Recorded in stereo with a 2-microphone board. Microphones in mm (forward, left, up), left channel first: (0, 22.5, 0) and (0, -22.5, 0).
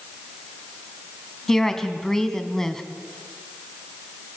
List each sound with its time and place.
1.5 s a woman speaking: 10° left (ahead or behind), 2 m